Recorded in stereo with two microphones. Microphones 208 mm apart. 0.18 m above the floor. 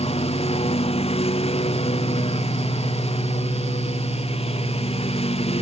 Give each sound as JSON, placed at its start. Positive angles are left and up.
{"t": 0.0, "sound": "a lawn mower", "side_deg": 30}